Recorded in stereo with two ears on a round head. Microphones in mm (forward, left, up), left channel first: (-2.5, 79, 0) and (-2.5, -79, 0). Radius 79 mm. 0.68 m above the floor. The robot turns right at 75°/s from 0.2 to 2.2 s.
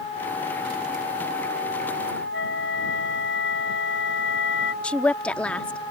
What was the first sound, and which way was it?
A flute, 70° left (ahead or behind).